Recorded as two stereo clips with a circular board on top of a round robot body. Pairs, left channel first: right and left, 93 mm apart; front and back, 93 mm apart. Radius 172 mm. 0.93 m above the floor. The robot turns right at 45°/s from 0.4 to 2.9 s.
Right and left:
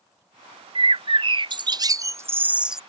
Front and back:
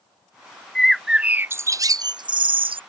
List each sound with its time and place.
0.8 s a bird: 85° left; by 2.8 s 175° left